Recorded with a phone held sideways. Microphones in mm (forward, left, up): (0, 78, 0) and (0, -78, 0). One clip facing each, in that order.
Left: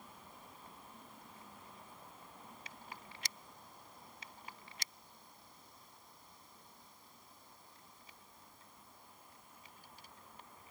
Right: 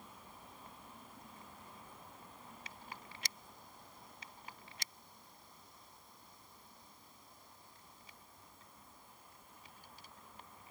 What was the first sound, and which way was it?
Only background noise.